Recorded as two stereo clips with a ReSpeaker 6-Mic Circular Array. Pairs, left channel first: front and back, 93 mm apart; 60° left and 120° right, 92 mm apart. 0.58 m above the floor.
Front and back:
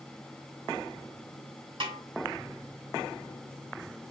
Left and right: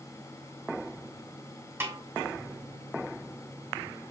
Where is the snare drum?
Straight behind, 2.5 m.